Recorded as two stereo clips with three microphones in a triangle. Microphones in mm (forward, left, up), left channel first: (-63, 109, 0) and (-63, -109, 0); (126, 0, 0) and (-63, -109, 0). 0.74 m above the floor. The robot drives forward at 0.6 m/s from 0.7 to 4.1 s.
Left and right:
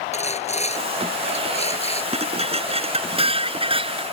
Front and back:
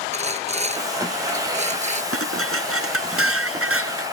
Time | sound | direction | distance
0.1 | sawing | 150° left | ?
2.1 | dishes clattering | 150° right | ?